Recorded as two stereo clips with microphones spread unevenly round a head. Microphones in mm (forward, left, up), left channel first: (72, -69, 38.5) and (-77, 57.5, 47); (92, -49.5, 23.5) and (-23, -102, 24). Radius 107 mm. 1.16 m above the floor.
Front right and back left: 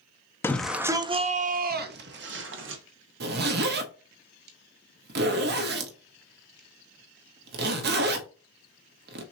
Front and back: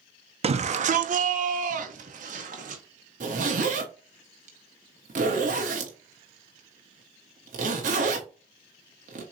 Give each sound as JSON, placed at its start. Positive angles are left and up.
{"t": 0.4, "sound": "a shout", "azimuth_deg": -120, "distance_m": 0.6}
{"t": 3.2, "sound": "a zipper", "azimuth_deg": 175, "distance_m": 0.9}